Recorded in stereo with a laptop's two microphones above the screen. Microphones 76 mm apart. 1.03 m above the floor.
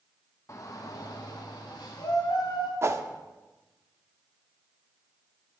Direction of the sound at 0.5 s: 40° left (ahead or behind).